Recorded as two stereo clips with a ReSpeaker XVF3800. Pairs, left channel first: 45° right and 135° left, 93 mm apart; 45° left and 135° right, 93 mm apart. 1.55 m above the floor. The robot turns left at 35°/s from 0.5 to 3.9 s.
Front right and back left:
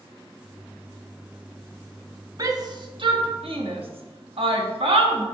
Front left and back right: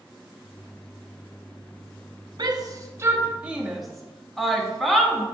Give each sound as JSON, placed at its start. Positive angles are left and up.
{"t": 2.4, "sound": "a shout", "azimuth_deg": -175, "distance_m": 0.7}